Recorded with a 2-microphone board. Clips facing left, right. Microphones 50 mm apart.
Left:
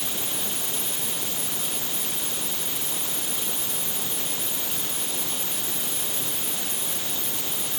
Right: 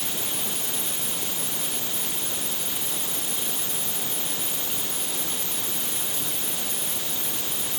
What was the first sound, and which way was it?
Only background noise.